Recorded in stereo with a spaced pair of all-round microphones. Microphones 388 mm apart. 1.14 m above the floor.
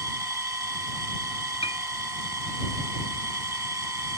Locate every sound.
0.0 s a machine running: 75° right (ahead or behind)
1.6 s a piano: 15° left (ahead or behind)